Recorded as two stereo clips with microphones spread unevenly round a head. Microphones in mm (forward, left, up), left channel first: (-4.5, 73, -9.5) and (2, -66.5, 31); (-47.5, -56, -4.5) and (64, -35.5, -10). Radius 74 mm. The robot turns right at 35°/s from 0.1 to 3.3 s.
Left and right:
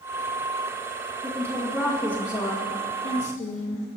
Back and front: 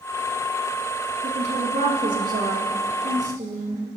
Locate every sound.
1.2 s a woman speaking: 15° right, 2.5 m; by 3.9 s 55° left, 2.5 m